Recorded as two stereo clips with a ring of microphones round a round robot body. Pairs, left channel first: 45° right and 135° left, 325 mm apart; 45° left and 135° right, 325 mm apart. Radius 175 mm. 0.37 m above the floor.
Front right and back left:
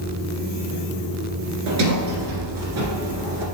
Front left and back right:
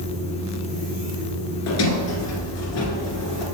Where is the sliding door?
90° left, 1.6 m.